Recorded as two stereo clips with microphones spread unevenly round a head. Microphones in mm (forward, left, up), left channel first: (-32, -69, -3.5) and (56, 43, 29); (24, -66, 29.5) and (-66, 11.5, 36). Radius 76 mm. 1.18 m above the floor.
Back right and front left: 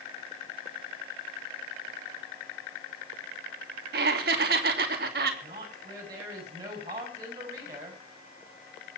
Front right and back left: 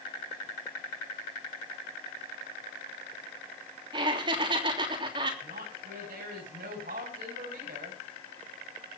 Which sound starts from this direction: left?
Laughter, at 3.9 s.